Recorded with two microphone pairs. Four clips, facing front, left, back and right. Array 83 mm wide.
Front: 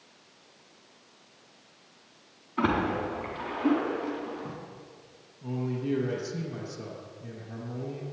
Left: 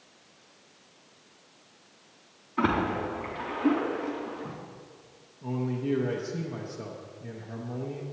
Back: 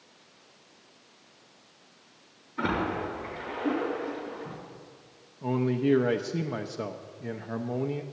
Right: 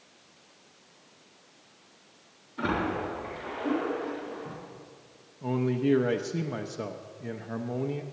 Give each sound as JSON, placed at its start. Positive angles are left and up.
{"t": 2.6, "sound": "a splash", "azimuth_deg": 50, "distance_m": 4.0}
{"t": 5.4, "sound": "a man speaking", "azimuth_deg": -155, "distance_m": 0.6}